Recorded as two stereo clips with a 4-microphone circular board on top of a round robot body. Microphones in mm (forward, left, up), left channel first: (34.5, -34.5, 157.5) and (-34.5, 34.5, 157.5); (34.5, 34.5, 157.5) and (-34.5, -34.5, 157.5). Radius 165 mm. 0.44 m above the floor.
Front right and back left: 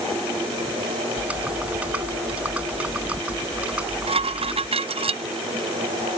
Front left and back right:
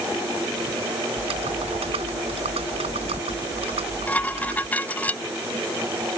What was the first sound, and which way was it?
Typing on a keyboard, 145° right.